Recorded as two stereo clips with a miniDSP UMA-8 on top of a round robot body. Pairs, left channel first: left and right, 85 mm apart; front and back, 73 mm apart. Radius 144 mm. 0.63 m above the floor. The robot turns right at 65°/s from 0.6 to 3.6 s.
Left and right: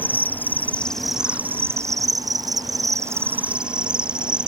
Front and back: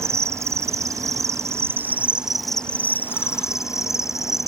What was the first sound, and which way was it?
An insect, 150° left.